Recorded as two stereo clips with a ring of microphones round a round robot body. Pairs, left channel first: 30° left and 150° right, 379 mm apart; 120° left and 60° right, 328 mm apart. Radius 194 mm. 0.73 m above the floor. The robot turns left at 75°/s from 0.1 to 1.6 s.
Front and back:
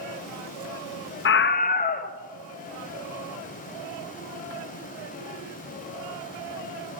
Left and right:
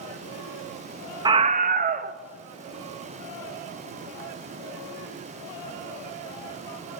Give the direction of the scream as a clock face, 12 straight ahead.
12 o'clock.